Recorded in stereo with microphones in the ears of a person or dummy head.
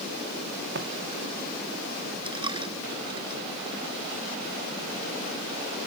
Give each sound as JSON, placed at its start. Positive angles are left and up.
{"t": 0.8, "sound": "footsteps", "side_deg": -65}
{"t": 2.2, "sound": "a dropped coin", "side_deg": -25}